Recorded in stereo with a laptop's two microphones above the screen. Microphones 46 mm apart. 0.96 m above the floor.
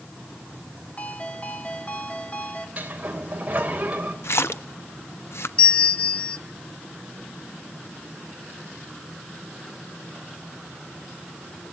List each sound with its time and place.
1.0 s a ringtone: 30° left (ahead or behind), 1.8 m
2.8 s a sliding door: 35° right (ahead or behind), 3 m
4.2 s a splash: 70° left (ahead or behind), 0.9 m
5.6 s a bell: 30° left (ahead or behind), 1.5 m